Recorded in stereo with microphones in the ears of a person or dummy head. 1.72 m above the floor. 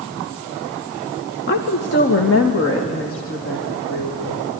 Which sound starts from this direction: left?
A woman speaking, at 1.5 s.